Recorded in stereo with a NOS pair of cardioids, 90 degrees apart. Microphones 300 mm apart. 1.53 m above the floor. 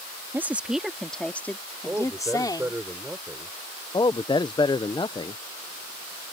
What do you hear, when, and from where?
0.3 s a woman speaking: 5° right; by 2.8 s 15° left
1.9 s a man speaking: 5° right
3.9 s a man speaking: 15° left